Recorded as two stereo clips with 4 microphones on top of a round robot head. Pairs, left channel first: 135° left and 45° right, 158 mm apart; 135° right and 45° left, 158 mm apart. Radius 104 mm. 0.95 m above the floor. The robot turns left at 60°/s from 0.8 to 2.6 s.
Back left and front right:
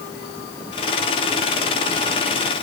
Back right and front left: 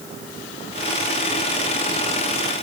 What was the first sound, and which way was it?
Only background noise.